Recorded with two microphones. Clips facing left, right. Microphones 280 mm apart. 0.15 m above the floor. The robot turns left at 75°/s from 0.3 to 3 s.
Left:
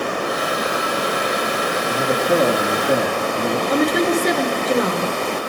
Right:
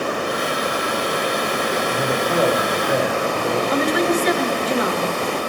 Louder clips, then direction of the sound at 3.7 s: Left 2 dB; 50° left (ahead or behind).